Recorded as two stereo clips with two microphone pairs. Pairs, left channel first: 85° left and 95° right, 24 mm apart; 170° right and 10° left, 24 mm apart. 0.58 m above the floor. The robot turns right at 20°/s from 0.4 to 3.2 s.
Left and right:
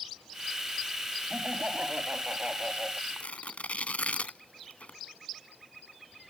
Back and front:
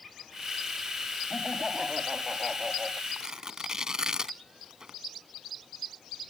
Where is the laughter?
85° right; by 3.0 s 50° right.